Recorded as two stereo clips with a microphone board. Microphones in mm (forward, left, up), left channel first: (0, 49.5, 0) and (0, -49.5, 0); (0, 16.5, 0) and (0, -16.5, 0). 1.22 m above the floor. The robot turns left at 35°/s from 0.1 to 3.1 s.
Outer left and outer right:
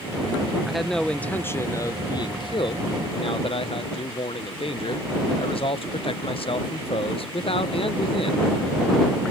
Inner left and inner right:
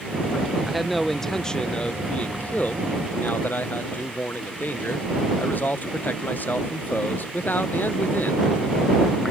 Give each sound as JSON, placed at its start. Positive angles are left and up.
{"t": 0.7, "sound": "a man speaking", "azimuth_deg": -175}